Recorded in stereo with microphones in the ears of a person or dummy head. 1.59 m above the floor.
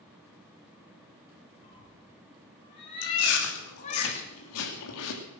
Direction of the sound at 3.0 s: 85° left.